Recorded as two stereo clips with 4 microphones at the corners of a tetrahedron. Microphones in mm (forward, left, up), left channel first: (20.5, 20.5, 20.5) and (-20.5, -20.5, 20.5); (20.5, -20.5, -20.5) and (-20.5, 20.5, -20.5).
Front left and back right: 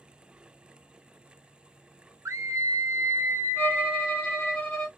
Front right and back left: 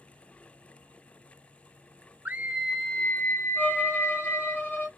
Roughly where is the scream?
Behind.